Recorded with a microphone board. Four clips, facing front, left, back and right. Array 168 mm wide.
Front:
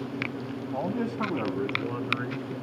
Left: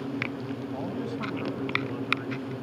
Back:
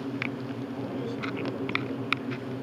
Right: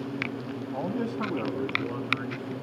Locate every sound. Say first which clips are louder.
0.7 s a man speaking: right 5 dB, front 7 dB; 25° right, 1.7 m; by 2.5 s 20° right, 3.5 m